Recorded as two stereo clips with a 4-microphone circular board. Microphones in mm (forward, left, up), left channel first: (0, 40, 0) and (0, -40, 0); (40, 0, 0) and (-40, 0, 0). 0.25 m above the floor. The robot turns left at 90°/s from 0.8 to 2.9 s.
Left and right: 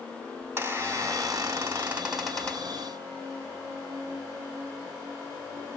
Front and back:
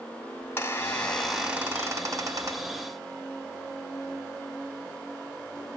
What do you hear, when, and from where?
0.4 s a squeak: 50° right, 1.2 m; by 2.7 s 140° left, 1.2 m